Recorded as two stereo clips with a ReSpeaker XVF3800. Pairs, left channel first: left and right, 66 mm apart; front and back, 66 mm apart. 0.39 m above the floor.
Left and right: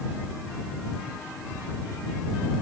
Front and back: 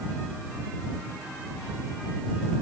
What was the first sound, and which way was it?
Only background noise.